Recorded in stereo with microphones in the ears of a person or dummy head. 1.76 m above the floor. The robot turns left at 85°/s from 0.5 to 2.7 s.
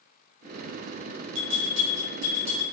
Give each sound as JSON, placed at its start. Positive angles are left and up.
{"t": 1.4, "sound": "a bell", "azimuth_deg": -95, "distance_m": 1.1}